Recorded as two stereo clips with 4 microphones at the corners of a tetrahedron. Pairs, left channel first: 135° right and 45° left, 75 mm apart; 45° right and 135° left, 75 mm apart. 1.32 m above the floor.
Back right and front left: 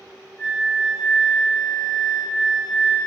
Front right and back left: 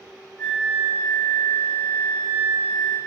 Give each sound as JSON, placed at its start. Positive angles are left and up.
{"t": 0.4, "sound": "a flute", "azimuth_deg": -85, "distance_m": 1.9}